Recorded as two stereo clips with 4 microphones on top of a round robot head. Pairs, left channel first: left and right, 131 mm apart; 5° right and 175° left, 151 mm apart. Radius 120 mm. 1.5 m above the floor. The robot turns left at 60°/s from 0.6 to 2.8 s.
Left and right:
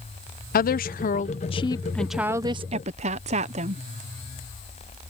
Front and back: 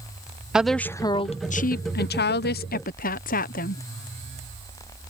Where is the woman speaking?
90° left; by 3.8 s 45° right.